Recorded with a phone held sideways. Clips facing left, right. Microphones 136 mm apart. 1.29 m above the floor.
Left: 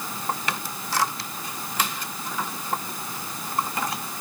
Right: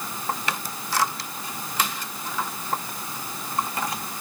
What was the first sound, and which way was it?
Only background noise.